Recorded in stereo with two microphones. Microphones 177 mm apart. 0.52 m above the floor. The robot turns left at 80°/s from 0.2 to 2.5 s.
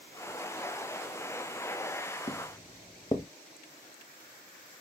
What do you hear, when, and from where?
2.3 s footsteps: 30° left (ahead or behind), 0.6 m; by 3.3 s 20° left (ahead or behind), 0.6 m